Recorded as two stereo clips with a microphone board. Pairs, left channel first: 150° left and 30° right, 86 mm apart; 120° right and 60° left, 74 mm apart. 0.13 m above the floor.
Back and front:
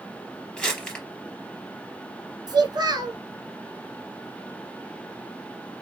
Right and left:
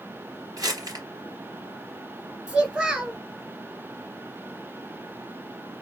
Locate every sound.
0.6 s crumpling: 75° left, 3.5 m
2.5 s a child speaking: 15° right, 1.6 m